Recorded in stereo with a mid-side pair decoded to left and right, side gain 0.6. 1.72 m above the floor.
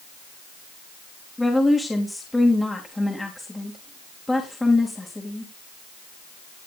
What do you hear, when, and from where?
1.4 s a woman speaking: 10° left, 2.5 m